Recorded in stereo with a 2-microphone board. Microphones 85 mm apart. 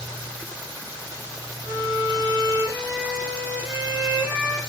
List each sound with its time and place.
1.6 s a violin: 40° right (ahead or behind), 1.9 m